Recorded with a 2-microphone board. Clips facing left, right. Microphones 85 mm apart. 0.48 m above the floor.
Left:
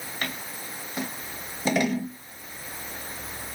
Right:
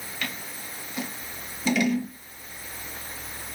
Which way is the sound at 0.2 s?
40° left (ahead or behind).